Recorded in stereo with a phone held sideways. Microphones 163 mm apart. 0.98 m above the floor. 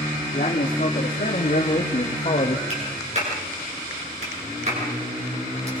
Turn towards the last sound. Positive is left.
turn(degrees=-45)  # may be behind; listen again after turning